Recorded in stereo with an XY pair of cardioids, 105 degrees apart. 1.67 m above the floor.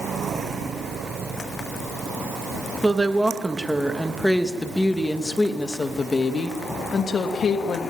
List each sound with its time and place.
2.8 s a woman speaking: 15° right, 3 m; by 7.8 s 50° left, 3.5 m